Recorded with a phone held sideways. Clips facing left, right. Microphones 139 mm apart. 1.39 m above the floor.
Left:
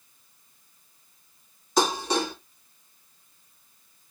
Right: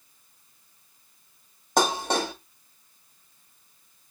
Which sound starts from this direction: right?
Dishes clattering, at 1.8 s.